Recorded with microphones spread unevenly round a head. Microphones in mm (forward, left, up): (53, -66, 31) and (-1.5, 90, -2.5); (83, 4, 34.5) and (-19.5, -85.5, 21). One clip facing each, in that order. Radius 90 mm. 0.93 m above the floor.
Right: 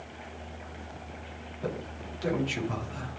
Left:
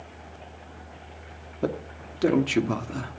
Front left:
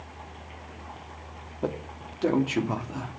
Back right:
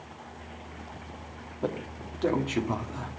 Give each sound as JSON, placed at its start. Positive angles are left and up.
{"t": 1.6, "sound": "a man speaking", "azimuth_deg": 125, "distance_m": 2.0}